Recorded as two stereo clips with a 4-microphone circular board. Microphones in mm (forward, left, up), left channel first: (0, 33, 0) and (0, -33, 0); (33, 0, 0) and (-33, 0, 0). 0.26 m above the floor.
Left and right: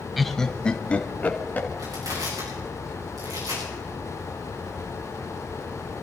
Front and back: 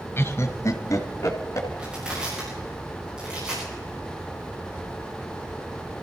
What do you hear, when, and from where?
0.2 s laughter: straight ahead, 1.1 m; by 1.7 s 30° left, 2.5 m
1.8 s crushing: 105° right, 9 m